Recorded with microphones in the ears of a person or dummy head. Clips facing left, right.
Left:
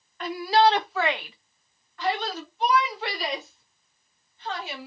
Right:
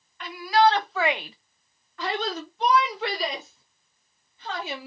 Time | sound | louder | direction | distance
0.2 | a shout | even | 35° left (ahead or behind) | 0.9 m